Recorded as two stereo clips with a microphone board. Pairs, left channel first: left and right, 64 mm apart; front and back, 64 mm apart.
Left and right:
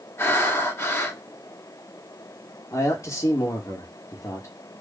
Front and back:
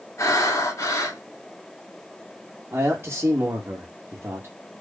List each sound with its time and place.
0.2 s breathing: 40° left, 2.5 m
2.7 s a man speaking: 125° left, 2.5 m